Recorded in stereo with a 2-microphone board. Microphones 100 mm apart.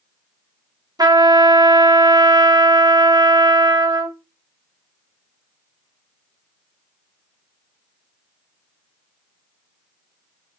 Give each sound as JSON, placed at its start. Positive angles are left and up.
{"t": 1.0, "sound": "a trumpet", "side_deg": -40, "distance_m": 1.0}